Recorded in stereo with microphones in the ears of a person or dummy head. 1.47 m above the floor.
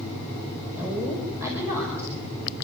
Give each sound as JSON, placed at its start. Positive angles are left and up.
{"t": 0.8, "sound": "a woman speaking", "side_deg": -15, "distance_m": 5.0}